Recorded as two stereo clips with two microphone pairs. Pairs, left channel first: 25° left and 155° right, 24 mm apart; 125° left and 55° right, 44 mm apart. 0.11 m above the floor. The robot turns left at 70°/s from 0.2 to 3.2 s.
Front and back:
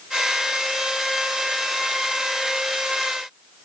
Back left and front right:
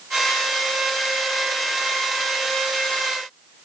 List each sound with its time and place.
Only background noise.